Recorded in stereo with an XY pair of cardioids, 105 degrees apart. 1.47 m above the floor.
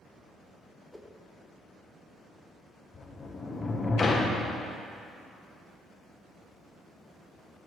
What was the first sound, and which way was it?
A whoosh, straight ahead.